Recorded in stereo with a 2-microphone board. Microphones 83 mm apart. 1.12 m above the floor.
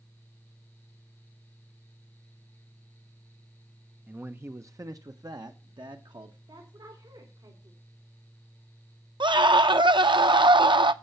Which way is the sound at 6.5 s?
65° right (ahead or behind).